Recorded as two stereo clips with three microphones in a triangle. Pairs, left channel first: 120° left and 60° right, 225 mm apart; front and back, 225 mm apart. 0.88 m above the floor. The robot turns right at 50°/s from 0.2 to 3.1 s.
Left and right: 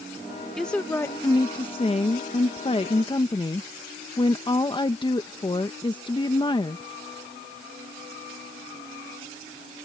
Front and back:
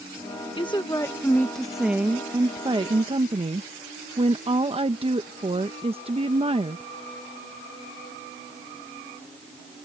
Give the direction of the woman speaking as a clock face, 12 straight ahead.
11 o'clock.